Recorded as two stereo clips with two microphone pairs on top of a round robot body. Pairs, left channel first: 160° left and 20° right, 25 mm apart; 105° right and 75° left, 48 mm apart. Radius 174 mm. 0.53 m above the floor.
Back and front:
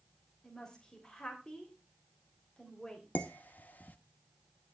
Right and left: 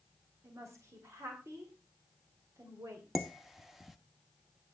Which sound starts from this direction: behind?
Dishes clattering, at 3.1 s.